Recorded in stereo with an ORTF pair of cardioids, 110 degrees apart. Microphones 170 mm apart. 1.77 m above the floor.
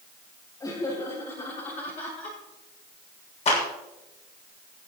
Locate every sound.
0.6 s laughter: 25° left, 7 m; by 2.4 s 50° left, 7 m
3.5 s a clap: 40° left, 7 m